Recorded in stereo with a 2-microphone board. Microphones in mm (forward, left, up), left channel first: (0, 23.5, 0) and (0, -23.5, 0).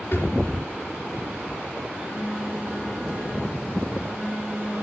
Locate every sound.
0.1 s a drawer: 60° left (ahead or behind), 3 m
1.9 s a phone buzzing: 20° right (ahead or behind), 2 m